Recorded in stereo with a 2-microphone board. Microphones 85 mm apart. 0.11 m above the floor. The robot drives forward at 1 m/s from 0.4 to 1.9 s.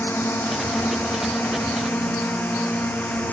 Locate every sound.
0.0 s a drone: 25° left (ahead or behind); by 3.3 s 20° left (ahead or behind)